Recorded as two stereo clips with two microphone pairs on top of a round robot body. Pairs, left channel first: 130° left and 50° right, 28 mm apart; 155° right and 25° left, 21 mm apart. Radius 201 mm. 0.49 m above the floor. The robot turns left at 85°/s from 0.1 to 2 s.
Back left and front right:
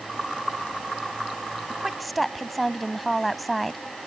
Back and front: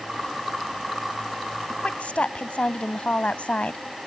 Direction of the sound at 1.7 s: 115° right.